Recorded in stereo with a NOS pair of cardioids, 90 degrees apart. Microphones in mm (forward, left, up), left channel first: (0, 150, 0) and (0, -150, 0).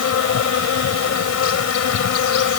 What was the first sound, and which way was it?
An insect, 55° left.